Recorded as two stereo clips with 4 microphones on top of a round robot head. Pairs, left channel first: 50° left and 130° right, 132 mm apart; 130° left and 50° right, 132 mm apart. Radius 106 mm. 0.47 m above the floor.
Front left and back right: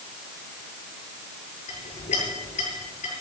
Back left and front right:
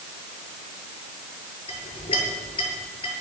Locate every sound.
1.7 s a clink: 80° left, 8 m